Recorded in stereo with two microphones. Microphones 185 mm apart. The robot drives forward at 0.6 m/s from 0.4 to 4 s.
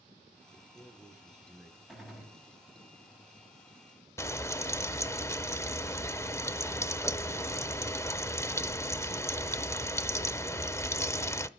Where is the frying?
15° left (ahead or behind), 0.6 m.